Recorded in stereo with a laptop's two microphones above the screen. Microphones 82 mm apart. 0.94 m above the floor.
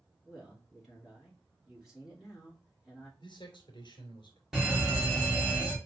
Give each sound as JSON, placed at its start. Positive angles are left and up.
{"t": 0.2, "sound": "a man speaking", "side_deg": -5, "distance_m": 2.0}
{"t": 3.2, "sound": "a man speaking", "side_deg": 70, "distance_m": 2.5}
{"t": 4.5, "sound": "a fire alarm", "side_deg": -5, "distance_m": 1.5}